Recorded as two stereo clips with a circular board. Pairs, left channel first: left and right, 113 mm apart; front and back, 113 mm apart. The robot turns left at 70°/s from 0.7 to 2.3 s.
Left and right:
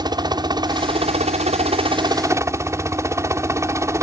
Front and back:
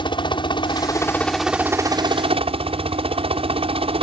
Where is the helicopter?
40° right; by 4.0 s 155° right.